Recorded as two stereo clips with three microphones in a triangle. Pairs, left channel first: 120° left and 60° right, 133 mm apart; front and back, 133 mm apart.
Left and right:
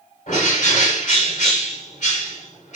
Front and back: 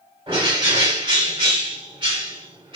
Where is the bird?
135° left, 2.5 m.